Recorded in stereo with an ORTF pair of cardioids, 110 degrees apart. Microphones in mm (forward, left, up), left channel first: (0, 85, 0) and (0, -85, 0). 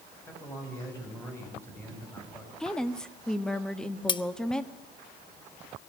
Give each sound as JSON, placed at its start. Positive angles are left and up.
{"t": 0.3, "sound": "a man speaking", "azimuth_deg": 15, "distance_m": 8.5}
{"t": 2.6, "sound": "a woman speaking", "azimuth_deg": 5, "distance_m": 1.7}
{"t": 4.1, "sound": "cutlery clinking", "azimuth_deg": 30, "distance_m": 1.0}